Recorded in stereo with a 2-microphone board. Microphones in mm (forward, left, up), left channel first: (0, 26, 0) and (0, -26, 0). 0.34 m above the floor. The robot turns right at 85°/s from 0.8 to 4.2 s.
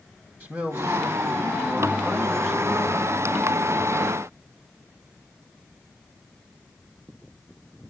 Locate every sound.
0.4 s a man speaking: 130° right, 2.5 m; by 4.2 s 160° left, 2.5 m